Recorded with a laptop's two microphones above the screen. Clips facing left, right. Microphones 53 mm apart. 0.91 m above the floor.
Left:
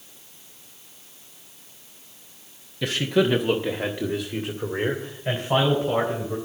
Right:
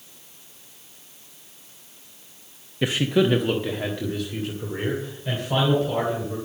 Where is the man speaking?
20° right (ahead or behind), 0.8 m; by 6.3 s 30° left (ahead or behind), 4 m.